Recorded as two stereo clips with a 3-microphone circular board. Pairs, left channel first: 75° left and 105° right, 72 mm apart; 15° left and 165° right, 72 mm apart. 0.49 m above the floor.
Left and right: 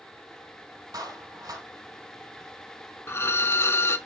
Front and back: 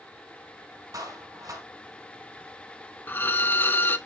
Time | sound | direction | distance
0.9 | a clap | 135° right | 4.5 m
3.1 | a violin | 55° left | 0.6 m